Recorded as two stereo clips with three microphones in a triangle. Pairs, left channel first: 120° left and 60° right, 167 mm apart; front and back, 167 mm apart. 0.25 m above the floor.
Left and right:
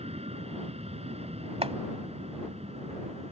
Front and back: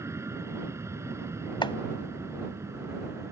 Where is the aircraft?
110° right.